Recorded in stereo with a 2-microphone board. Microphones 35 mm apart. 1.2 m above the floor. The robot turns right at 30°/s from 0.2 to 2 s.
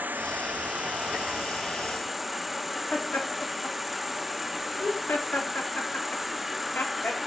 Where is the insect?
55° right, 0.7 m; by 7.3 s straight ahead, 0.7 m.